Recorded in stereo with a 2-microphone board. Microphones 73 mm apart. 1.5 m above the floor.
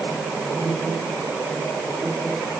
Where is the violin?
No violin in this recording.